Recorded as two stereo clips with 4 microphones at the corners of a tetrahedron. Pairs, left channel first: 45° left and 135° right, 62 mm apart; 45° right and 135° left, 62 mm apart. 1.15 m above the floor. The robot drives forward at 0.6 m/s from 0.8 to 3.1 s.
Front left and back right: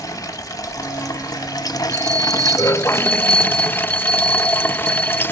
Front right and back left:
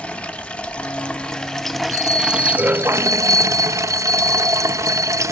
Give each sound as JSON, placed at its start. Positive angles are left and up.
{"t": 0.0, "sound": "running water", "azimuth_deg": 25, "distance_m": 1.4}
{"t": 1.9, "sound": "a bell", "azimuth_deg": 115, "distance_m": 4.5}